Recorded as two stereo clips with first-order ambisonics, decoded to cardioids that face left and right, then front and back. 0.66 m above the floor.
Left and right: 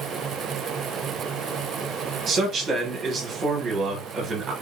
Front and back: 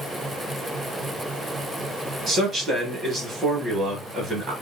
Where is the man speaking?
135° right, 1.3 m.